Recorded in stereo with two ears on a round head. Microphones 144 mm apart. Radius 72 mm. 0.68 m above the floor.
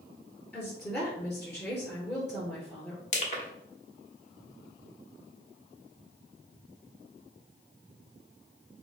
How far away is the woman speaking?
About 2 m.